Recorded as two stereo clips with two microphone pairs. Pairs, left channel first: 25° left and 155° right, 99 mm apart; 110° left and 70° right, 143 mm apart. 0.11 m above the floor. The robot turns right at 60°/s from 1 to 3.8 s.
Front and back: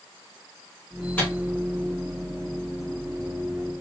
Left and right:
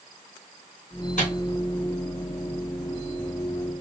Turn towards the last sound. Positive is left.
turn(degrees=-110)